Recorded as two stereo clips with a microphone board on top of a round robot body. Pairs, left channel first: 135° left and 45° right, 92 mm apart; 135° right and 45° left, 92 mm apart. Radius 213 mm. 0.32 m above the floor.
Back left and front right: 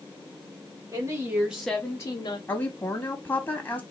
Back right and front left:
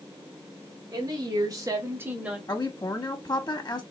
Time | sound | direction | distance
0.9 | a woman speaking | 5° left | 1.4 m
2.5 | a woman speaking | 160° right | 1.3 m